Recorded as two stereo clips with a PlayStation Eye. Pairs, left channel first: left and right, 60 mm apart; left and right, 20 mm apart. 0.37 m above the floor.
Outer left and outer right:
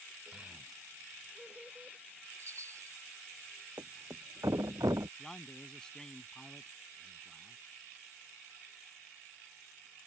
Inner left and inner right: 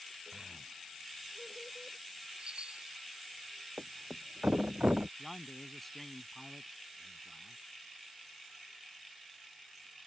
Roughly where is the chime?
Right.